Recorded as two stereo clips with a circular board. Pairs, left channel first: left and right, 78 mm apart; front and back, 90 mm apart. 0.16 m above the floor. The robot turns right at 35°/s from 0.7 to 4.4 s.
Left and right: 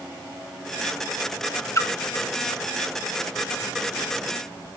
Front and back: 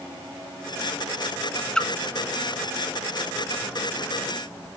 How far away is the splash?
About 0.8 m.